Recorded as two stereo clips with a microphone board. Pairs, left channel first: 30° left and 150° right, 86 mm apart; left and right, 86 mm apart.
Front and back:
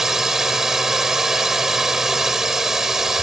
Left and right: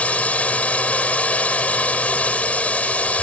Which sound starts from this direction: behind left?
A drone, at 0.0 s.